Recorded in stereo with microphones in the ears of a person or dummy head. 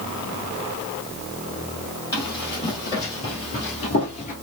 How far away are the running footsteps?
About 3 m.